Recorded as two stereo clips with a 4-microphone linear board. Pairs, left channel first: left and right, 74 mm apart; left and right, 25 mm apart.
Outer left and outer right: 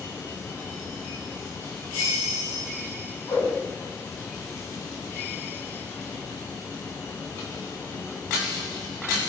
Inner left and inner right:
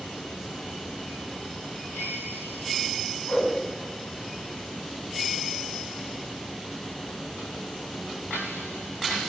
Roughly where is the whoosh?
Left.